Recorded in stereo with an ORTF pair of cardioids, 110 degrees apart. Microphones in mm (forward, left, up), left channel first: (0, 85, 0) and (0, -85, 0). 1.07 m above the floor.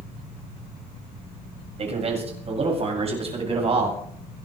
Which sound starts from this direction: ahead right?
A man speaking, at 1.8 s.